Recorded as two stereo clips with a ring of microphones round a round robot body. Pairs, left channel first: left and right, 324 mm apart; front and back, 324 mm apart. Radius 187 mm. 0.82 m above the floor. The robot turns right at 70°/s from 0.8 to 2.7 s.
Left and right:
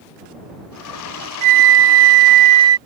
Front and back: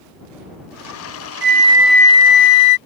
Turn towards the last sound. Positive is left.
turn(degrees=-35)